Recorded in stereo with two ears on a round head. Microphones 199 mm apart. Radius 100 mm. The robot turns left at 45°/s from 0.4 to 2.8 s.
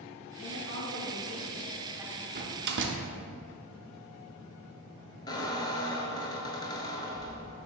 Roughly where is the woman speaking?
Right.